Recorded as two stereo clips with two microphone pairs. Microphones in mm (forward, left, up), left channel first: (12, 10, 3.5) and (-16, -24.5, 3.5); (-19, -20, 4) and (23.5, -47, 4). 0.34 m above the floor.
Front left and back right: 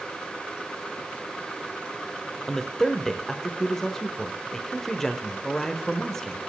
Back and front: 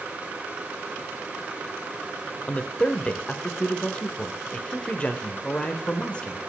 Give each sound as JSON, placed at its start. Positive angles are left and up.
{"t": 2.5, "sound": "a man speaking", "azimuth_deg": 120, "distance_m": 0.9}